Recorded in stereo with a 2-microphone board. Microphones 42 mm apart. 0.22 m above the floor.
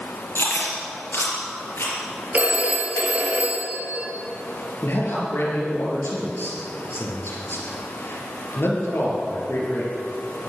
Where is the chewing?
70° left (ahead or behind), 4 m.